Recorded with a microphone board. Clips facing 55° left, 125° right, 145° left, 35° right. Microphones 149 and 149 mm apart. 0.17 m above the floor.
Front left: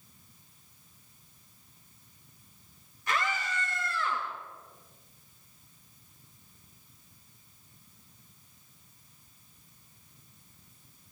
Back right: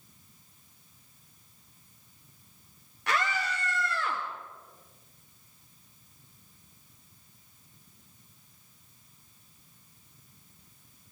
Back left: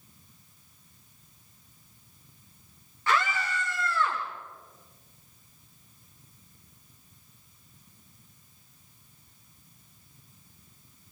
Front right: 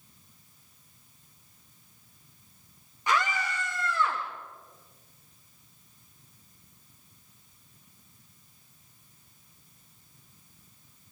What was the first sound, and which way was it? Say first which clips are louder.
A scream: back right 2 dB, even; 110° right.